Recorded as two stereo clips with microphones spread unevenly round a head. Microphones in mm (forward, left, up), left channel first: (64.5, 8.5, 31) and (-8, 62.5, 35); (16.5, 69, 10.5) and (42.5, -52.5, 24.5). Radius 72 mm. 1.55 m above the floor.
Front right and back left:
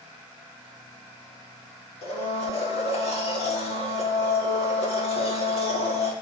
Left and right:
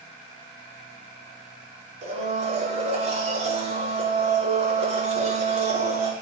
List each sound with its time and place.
2.0 s a blender: 40° right, 5.5 m